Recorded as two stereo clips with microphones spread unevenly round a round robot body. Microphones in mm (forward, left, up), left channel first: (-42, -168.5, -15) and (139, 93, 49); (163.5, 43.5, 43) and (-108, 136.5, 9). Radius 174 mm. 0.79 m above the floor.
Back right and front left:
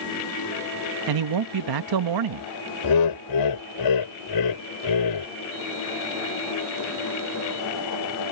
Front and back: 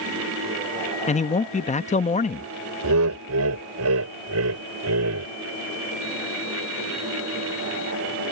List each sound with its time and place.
1.1 s a man speaking: 50° left
2.8 s laughter: 150° right